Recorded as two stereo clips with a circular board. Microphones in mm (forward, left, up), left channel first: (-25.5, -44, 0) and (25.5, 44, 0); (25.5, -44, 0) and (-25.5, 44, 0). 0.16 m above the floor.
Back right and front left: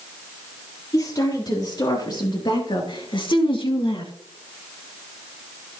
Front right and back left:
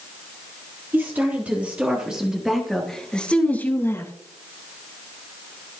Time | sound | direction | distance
0.9 | a woman speaking | 170° right | 4 m